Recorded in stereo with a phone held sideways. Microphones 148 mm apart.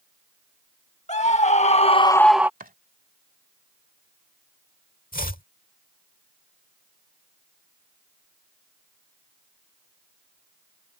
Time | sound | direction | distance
1.1 | a scream | 50° left (ahead or behind) | ?
2.6 | chopping | 75° right (ahead or behind) | ?
5.1 | chopping | 75° left (ahead or behind) | ?